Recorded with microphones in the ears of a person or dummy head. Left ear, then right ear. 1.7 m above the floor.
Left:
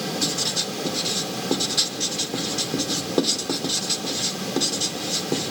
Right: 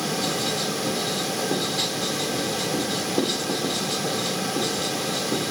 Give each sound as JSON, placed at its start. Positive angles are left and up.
{"t": 0.2, "sound": "writing", "side_deg": 90, "distance_m": 1.8}